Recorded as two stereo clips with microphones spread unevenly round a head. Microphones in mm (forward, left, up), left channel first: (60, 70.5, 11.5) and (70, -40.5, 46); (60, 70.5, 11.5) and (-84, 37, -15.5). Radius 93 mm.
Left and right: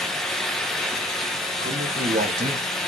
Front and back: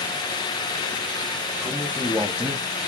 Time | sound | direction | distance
1.6 | a man speaking | 75° right | 3 m